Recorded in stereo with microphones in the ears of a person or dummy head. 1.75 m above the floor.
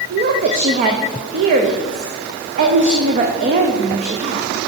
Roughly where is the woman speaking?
Right.